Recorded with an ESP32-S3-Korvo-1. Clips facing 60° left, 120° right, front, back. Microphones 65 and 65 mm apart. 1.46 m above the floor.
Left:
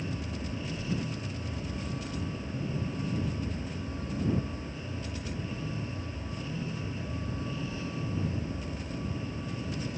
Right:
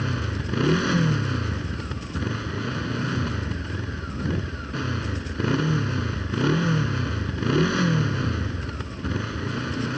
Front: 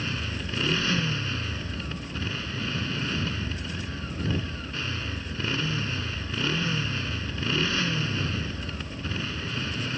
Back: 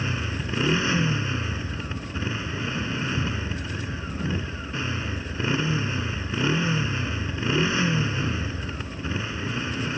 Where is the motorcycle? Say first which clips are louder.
Right 7 dB, back 3 dB; 110° right.